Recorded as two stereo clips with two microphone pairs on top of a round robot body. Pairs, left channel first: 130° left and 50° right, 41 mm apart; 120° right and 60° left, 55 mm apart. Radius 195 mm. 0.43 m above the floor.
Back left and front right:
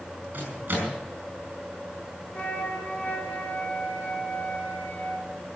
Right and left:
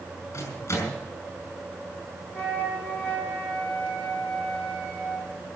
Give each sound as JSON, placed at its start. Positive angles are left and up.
{"t": 0.3, "sound": "a microwave", "azimuth_deg": -100, "distance_m": 7.0}
{"t": 2.3, "sound": "a flute", "azimuth_deg": 180, "distance_m": 6.0}